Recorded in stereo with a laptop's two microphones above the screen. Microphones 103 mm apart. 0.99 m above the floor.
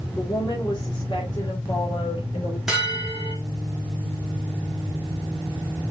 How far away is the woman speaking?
About 2 m.